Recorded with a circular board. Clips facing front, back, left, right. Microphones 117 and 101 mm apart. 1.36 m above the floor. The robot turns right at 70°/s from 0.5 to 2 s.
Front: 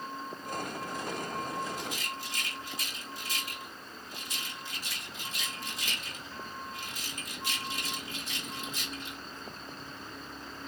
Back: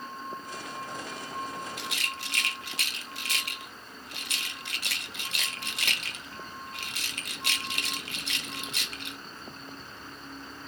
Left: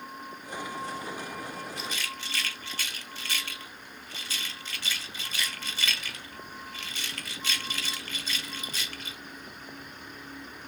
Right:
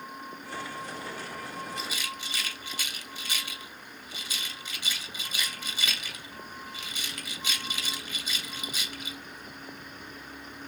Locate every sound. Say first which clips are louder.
1.8 s a rattle: even, even; straight behind, 0.5 m; by 9.2 s 165° right, 0.5 m